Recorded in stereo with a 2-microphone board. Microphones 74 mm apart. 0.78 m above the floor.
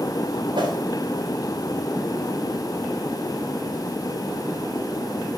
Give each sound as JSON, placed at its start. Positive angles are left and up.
{"t": 0.6, "sound": "a whoosh", "side_deg": -75, "distance_m": 3.5}